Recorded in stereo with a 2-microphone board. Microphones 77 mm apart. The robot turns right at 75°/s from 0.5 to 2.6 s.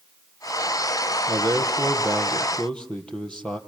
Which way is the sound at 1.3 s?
85° right.